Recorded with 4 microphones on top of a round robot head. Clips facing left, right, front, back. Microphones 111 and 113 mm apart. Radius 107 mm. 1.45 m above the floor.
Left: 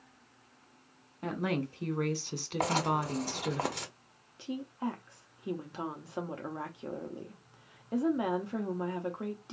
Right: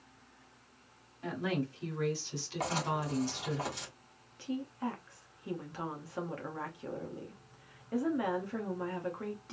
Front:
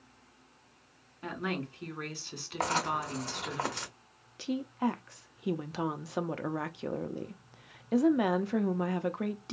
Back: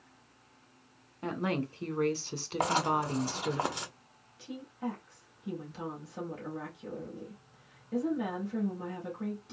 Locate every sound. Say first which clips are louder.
1.2 s a woman speaking: left 2 dB, back 3 dB; 125° left, 1.3 m
2.6 s writing: left 4 dB, back 2 dB; 105° left, 0.8 m
4.4 s a woman speaking: left 1 dB, front 7 dB; 20° left, 0.6 m